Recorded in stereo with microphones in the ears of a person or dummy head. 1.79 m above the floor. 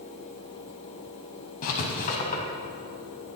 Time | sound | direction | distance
1.6 | writing | 50° left (ahead or behind) | 4 m